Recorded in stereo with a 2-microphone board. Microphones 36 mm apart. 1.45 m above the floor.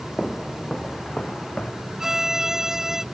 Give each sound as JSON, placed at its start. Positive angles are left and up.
{"t": 0.2, "sound": "footsteps", "side_deg": 15}
{"t": 2.0, "sound": "a violin", "side_deg": -10}